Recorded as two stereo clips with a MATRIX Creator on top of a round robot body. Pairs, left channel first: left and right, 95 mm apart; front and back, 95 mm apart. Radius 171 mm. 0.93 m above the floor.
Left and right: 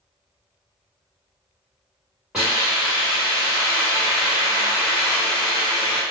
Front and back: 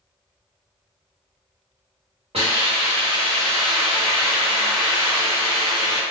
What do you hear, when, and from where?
2.3 s a hiss: 175° right, 1.8 m